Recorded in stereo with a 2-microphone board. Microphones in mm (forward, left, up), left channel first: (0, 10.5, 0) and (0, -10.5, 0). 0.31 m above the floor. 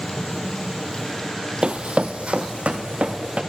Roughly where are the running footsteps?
Right.